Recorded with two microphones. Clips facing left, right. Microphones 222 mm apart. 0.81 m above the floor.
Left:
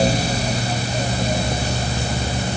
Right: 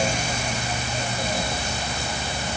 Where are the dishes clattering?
I don't hear dishes clattering.